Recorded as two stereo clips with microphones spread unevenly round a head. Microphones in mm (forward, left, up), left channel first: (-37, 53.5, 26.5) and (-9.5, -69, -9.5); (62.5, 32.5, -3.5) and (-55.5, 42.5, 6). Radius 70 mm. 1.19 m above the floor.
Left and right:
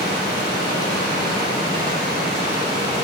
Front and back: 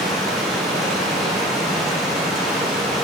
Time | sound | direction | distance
0.0 | running water | 90° left | 2 m